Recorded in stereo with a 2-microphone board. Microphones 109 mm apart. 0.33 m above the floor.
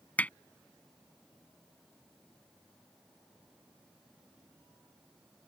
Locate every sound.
0.2 s hammering: 15° left (ahead or behind)